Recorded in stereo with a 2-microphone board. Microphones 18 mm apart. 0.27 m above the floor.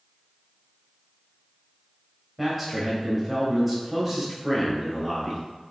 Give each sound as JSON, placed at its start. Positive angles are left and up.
{"t": 2.4, "sound": "a man speaking", "side_deg": -10, "distance_m": 1.3}